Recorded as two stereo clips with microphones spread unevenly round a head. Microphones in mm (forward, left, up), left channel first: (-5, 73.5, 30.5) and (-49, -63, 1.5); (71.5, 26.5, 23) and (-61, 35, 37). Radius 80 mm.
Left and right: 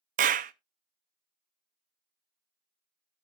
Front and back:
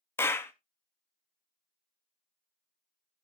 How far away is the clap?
About 0.5 m.